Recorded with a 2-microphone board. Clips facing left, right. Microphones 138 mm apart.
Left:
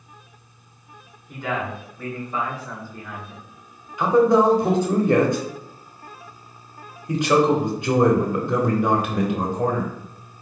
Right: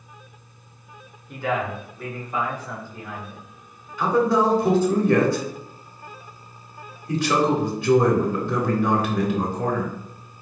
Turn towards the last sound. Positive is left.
turn(degrees=20)  # may be behind; listen again after turning